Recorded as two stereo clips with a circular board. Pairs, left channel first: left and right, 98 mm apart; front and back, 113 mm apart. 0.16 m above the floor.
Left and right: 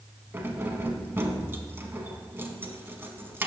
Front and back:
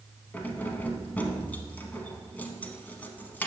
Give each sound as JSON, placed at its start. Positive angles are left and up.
{"t": 0.3, "sound": "keys jangling", "azimuth_deg": -55, "distance_m": 0.8}